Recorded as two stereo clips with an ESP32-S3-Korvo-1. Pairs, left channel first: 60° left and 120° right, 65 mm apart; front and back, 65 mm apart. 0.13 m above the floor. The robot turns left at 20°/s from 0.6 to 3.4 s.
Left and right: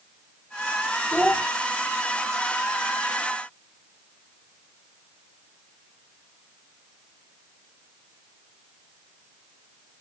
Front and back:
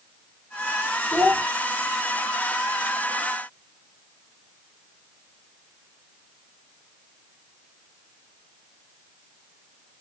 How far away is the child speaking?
About 1.0 m.